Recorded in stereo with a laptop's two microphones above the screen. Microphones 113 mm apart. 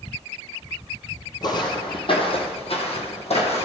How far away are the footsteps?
About 2 m.